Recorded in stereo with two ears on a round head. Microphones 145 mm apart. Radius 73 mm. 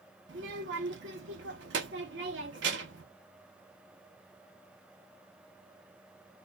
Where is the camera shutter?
I don't hear a camera shutter.